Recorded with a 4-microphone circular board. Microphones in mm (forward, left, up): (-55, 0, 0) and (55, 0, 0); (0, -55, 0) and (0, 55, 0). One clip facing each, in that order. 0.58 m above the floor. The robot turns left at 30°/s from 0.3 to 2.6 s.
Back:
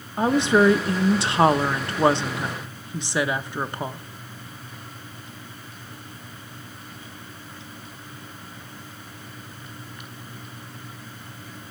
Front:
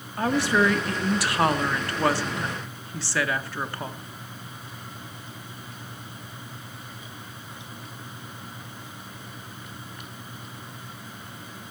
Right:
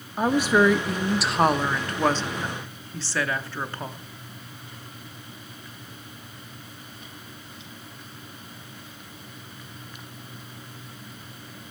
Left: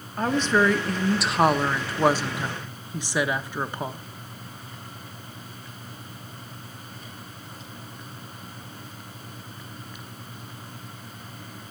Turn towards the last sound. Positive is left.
turn(degrees=140)